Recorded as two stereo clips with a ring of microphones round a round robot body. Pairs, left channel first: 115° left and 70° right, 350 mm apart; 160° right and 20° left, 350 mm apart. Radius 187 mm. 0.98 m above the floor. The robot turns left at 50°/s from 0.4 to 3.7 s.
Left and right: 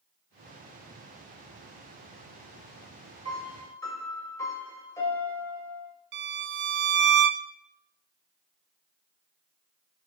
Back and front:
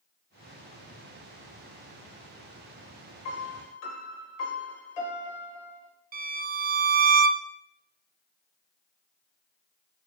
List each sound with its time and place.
3.2 s a piano: 145° right, 1.5 m; by 5.9 s 165° right, 1.5 m
6.1 s a violin: 30° right, 0.5 m